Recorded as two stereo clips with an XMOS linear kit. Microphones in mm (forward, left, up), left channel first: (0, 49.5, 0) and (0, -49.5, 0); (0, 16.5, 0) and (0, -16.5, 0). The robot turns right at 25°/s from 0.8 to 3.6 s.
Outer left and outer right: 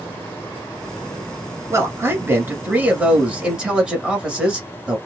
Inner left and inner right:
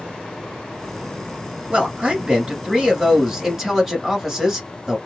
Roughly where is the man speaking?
Ahead right.